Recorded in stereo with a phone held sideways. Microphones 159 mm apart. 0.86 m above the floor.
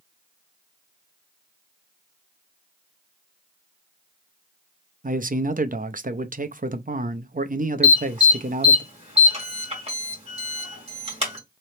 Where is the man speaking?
55° right (ahead or behind), 0.6 m.